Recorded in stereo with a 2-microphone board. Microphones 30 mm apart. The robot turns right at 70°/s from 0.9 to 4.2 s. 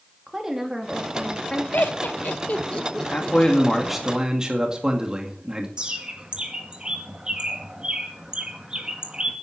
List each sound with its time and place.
0.3 s a woman speaking: 15° right, 2.5 m; by 1.6 s 40° left, 2.5 m
1.7 s laughter: 70° left (ahead or behind), 1.2 m; by 3.4 s 10° right (ahead or behind), 1.2 m
3.1 s a man speaking: 130° left, 2 m; by 5.7 s 155° right, 2 m
5.8 s a bird: 30° right (ahead or behind), 2 m